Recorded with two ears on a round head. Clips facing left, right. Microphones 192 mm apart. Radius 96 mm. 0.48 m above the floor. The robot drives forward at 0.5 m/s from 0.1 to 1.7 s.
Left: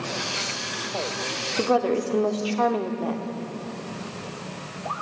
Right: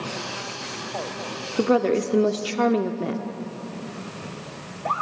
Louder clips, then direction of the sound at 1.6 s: Right 2 dB; 25° right (ahead or behind).